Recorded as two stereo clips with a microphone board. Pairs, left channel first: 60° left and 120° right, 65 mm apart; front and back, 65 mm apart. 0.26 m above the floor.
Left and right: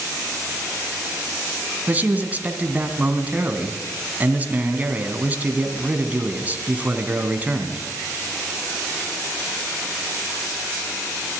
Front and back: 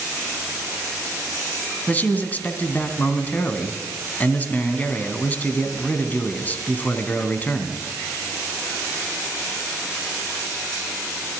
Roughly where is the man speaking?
Ahead right.